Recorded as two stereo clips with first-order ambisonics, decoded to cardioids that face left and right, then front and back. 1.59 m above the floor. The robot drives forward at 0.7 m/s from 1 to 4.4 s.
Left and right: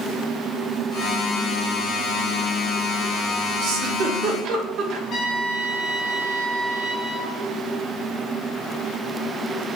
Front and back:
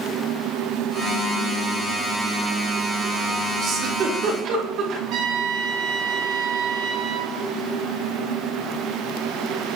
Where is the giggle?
120° right, 1.8 m; by 5.0 s 135° right, 2 m.